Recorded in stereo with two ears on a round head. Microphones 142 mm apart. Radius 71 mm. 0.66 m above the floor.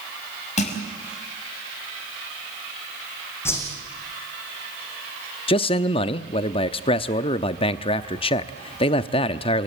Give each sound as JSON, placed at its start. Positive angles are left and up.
{"t": 0.6, "sound": "crushing", "side_deg": 50, "distance_m": 5.5}
{"t": 3.5, "sound": "a whoosh", "side_deg": 15, "distance_m": 5.5}
{"t": 5.5, "sound": "a man speaking", "side_deg": 35, "distance_m": 0.7}